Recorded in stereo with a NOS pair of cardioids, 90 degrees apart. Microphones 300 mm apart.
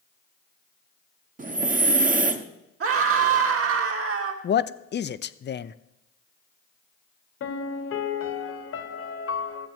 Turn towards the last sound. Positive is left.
turn(degrees=50)